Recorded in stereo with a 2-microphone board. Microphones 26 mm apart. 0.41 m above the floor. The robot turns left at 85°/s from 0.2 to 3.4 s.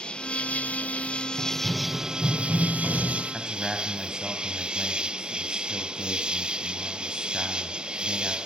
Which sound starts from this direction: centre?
A man speaking, at 3.3 s.